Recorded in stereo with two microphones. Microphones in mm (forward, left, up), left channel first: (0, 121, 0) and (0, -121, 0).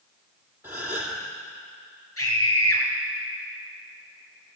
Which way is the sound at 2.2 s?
65° left (ahead or behind).